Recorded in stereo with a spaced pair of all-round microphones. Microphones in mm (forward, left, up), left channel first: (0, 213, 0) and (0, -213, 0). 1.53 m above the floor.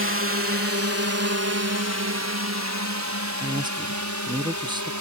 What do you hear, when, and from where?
0.0 s a drone: 30° right (ahead or behind); by 5.0 s 40° right (ahead or behind)
3.4 s a man speaking: 10° right (ahead or behind)